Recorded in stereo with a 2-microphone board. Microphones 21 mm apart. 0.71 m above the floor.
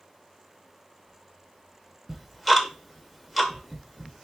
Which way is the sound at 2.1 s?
Centre (ahead or behind).